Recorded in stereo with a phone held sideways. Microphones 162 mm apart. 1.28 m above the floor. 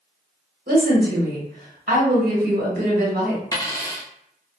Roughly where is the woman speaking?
Right.